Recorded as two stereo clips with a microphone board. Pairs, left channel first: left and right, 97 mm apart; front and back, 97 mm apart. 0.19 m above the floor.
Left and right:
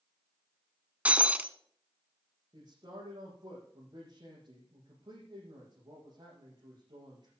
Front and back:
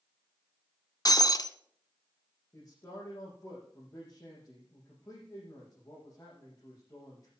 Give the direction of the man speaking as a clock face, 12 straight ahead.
2 o'clock.